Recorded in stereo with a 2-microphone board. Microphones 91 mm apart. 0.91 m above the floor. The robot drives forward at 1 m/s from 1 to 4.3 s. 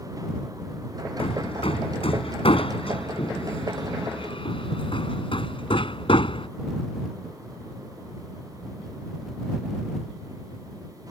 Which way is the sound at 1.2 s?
85° left.